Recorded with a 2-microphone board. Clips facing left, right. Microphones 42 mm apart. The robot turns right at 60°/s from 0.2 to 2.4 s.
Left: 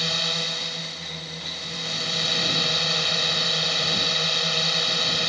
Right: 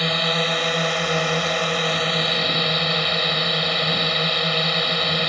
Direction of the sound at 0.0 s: 150° right.